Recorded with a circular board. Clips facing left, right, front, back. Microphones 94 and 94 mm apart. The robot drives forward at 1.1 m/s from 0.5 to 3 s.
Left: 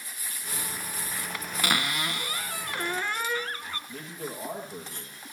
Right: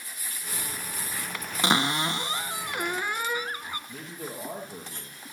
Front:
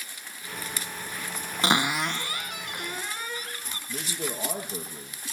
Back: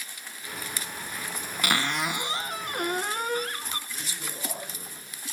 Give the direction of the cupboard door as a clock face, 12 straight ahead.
1 o'clock.